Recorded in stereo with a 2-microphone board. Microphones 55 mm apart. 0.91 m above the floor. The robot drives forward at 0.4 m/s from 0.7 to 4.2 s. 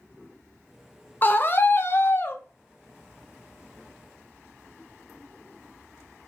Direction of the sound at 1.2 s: 35° left (ahead or behind).